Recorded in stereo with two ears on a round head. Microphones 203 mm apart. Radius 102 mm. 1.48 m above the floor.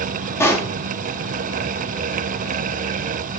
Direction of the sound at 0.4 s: 10° left (ahead or behind).